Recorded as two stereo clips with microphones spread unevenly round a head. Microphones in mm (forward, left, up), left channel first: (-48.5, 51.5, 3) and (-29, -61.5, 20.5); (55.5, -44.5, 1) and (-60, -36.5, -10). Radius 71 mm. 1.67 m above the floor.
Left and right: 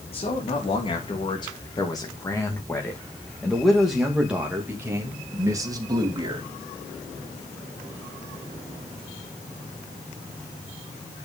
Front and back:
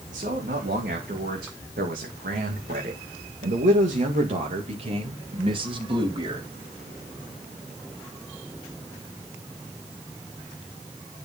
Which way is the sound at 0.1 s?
135° left.